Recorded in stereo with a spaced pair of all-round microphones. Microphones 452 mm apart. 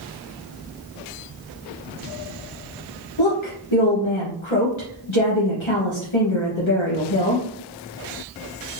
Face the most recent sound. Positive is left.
turn(degrees=70)  # may be behind; listen again after turning